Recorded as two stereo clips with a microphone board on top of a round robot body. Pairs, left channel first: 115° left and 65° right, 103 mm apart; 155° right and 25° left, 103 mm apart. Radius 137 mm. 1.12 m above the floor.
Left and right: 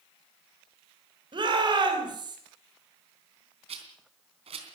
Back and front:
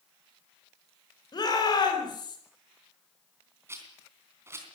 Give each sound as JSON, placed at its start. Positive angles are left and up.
{"t": 1.3, "sound": "a shout", "azimuth_deg": -110, "distance_m": 5.0}
{"t": 3.7, "sound": "a rattle", "azimuth_deg": -45, "distance_m": 3.0}